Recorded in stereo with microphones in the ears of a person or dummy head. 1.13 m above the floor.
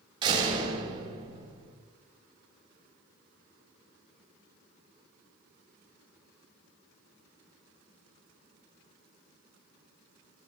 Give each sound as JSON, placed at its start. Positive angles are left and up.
{"t": 0.2, "sound": "a door slam", "side_deg": -30, "distance_m": 4.5}